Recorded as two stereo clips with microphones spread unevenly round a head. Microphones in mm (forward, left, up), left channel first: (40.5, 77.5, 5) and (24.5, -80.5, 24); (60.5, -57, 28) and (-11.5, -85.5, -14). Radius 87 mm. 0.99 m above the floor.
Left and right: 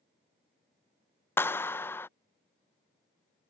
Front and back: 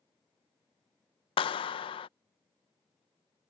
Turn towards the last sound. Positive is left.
turn(degrees=20)